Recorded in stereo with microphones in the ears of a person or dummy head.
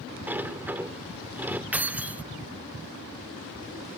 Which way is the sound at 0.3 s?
10° right (ahead or behind).